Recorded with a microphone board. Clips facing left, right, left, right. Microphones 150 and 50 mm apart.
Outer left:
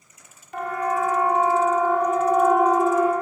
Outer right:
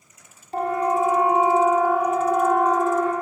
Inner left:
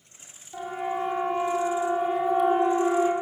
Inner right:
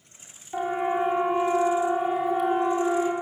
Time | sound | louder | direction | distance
0.5 | a siren | outer right 3 dB, inner right 5 dB | 35° right (ahead or behind) | 3.5 m